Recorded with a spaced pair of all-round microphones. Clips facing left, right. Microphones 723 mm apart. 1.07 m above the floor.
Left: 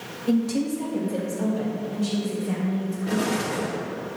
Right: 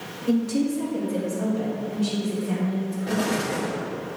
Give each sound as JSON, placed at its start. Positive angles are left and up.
{"t": 0.3, "sound": "a woman speaking", "side_deg": 30, "distance_m": 1.0}
{"t": 3.1, "sound": "an explosion", "side_deg": -10, "distance_m": 1.1}